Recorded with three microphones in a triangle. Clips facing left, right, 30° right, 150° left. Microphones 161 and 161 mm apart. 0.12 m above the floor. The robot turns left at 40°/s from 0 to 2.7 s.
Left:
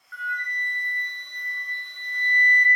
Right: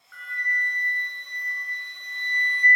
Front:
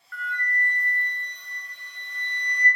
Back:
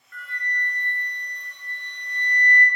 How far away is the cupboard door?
No cupboard door in this recording.